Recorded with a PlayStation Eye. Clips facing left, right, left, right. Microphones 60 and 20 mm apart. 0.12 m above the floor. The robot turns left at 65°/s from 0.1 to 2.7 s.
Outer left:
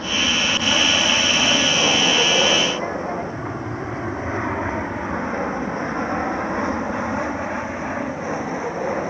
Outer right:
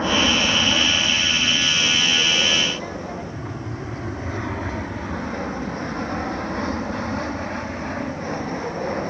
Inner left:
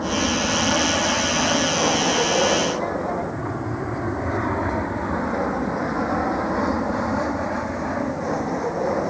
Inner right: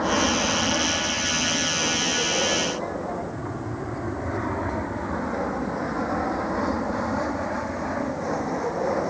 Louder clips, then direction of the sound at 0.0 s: Outer right 2 dB, even; 30° right (ahead or behind).